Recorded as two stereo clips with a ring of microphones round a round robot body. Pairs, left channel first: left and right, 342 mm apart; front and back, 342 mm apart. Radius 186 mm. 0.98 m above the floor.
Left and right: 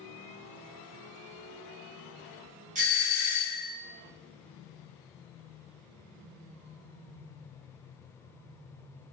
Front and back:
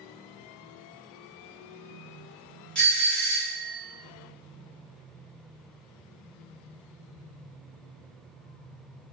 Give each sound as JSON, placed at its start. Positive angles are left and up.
{"t": 2.8, "sound": "a doorbell", "azimuth_deg": -80, "distance_m": 0.8}